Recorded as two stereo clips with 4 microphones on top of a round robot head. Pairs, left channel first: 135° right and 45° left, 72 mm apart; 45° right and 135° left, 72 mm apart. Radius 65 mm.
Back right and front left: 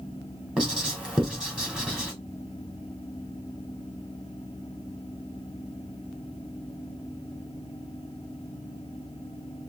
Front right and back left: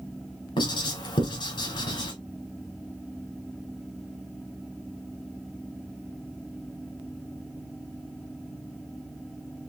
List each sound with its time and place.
0.6 s writing: 35° right, 2.5 m